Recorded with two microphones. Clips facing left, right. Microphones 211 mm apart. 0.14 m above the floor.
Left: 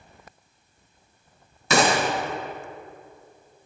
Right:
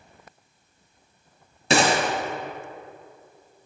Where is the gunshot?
30° right (ahead or behind), 1.5 m.